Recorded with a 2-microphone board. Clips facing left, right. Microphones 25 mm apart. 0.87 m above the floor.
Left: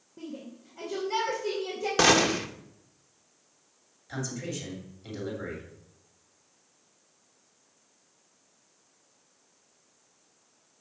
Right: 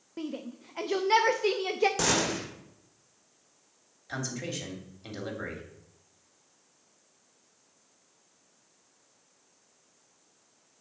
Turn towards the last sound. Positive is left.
turn(degrees=-25)  # may be behind; listen again after turning